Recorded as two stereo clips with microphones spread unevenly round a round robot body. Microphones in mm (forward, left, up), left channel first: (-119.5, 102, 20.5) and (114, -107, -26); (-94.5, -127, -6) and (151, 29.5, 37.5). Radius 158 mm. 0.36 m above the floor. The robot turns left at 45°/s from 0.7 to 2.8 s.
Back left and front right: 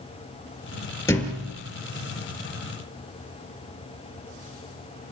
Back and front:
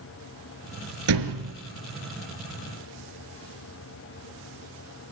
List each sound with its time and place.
1.1 s a thud: 60° left, 2.5 m; by 1.5 s 40° left, 2.5 m